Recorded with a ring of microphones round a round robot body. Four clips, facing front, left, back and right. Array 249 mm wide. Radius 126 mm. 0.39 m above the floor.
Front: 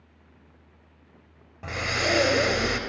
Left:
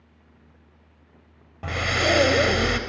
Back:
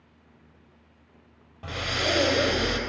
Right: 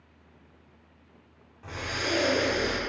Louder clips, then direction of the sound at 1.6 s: Left 9 dB, front 1 dB; 80° left.